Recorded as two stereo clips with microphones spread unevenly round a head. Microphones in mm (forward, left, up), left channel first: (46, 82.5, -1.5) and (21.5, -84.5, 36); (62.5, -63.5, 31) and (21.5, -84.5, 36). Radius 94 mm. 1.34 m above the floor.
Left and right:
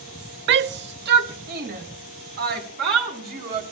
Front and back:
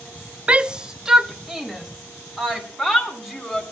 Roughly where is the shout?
Right.